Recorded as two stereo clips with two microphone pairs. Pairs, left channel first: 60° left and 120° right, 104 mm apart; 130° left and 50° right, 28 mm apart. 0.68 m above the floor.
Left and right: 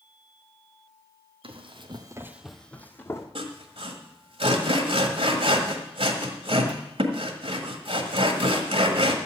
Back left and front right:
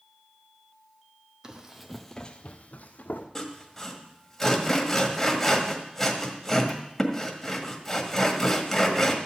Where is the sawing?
145° right, 1.6 m.